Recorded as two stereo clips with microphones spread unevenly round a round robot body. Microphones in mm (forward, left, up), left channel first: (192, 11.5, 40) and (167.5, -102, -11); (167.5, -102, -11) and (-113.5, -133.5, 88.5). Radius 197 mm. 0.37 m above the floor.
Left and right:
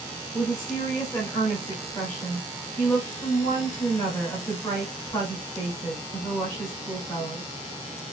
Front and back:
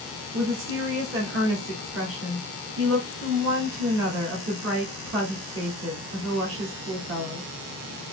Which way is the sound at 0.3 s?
170° left.